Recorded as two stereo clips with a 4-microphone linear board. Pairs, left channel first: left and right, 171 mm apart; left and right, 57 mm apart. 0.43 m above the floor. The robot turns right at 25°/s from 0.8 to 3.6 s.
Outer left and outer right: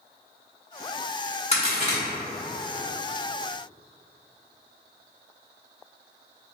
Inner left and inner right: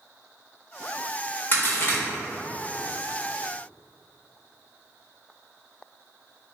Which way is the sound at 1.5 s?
35° left (ahead or behind).